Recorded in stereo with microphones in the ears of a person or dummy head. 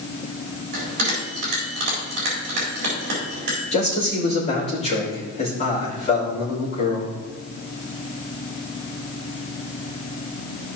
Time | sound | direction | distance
0.7 | a bell | 55° right (ahead or behind) | 4 m
3.7 | a man speaking | 35° left (ahead or behind) | 3.5 m